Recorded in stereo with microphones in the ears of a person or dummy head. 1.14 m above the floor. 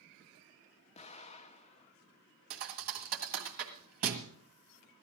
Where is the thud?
45° right (ahead or behind), 1.7 m.